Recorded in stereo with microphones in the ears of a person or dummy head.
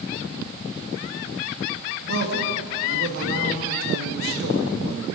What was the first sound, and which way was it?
A man speaking, 70° right (ahead or behind).